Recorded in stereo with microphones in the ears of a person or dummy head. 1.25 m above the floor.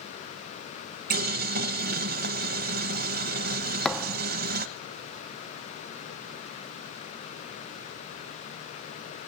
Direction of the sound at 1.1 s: 55° right (ahead or behind).